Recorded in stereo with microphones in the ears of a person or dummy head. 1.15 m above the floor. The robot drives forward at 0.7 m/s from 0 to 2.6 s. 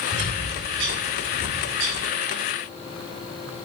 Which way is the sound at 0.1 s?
80° right.